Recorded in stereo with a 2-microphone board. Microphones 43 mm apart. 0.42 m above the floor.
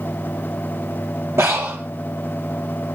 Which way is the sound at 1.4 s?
65° right (ahead or behind).